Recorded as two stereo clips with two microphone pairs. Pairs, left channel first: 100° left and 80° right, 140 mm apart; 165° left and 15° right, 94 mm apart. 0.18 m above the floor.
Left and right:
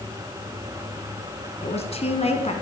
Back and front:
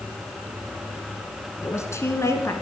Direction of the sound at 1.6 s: 115° left.